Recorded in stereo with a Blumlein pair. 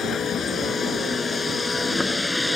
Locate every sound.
0.0 s a vehicle: 25° left; by 2.6 s 5° left